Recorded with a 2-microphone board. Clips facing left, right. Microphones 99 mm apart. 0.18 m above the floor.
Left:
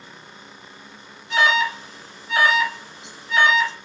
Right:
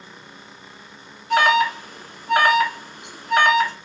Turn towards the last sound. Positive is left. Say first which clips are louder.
# right 3 dB
turn(degrees=-55)  # may be behind; listen again after turning